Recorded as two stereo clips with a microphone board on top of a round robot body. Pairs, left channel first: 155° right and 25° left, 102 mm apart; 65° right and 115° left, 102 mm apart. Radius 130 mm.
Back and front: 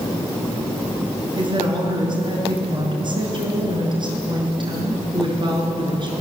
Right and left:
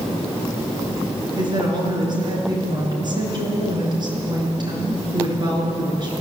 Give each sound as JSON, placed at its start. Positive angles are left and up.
{"t": 1.4, "sound": "a woman speaking", "azimuth_deg": 65, "distance_m": 6.0}